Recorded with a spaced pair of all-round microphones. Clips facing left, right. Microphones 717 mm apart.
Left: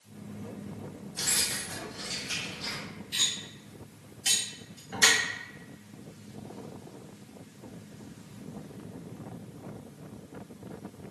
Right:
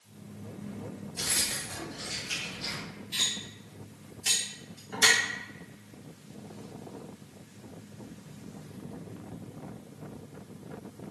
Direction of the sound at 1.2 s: 20° left (ahead or behind).